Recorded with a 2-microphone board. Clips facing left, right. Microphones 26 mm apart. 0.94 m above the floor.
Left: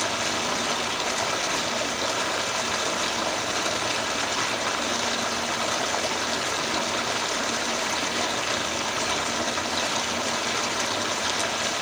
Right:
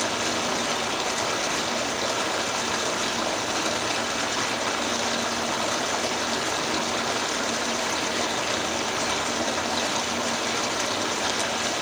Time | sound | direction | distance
0.0 | running water | 10° left (ahead or behind) | 1.7 m